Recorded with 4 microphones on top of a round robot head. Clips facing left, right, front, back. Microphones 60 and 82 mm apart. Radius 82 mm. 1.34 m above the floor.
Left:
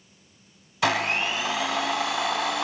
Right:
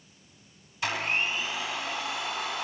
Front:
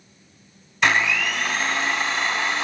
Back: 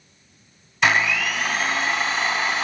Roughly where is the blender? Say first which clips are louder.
Left 5 dB, even; left.